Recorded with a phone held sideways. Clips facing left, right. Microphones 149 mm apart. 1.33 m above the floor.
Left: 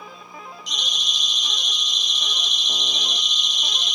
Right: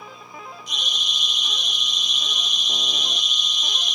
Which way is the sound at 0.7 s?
90° left.